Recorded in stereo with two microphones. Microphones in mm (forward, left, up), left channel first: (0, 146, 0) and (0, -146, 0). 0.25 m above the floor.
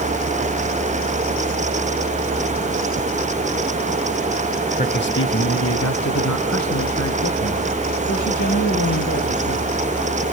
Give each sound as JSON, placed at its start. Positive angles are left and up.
{"t": 4.8, "sound": "a man speaking", "side_deg": 30, "distance_m": 1.0}